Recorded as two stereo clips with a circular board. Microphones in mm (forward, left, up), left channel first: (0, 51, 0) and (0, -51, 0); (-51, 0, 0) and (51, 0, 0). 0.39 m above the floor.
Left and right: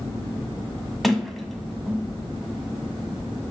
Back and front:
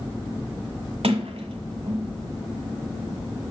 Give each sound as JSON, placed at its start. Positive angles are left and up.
{"t": 1.0, "sound": "a sliding door", "azimuth_deg": 0, "distance_m": 1.2}